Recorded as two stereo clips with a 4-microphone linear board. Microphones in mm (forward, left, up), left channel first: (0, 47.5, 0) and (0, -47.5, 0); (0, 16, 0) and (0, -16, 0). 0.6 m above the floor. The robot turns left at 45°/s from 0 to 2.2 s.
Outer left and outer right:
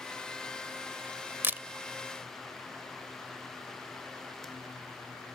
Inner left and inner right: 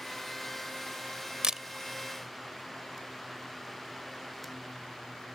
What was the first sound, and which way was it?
A camera shutter, 25° right (ahead or behind).